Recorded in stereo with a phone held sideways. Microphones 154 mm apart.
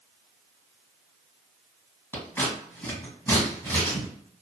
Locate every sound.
2.1 s scissors: 15° left (ahead or behind), 1.3 m